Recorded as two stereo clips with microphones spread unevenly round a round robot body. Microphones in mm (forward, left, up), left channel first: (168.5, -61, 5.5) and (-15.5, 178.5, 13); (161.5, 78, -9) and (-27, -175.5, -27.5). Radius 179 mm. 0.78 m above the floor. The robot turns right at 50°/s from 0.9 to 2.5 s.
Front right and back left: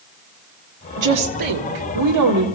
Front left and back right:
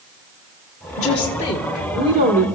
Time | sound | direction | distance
1.0 | a woman speaking | 105° left | 2 m